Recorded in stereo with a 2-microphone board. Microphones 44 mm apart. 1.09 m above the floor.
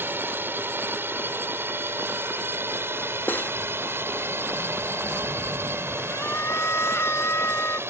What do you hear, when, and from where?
0.0 s a drone: 55° right (ahead or behind); by 7.9 s 75° right (ahead or behind)
3.3 s cutlery clinking: 45° left (ahead or behind)
6.1 s a scream: 80° left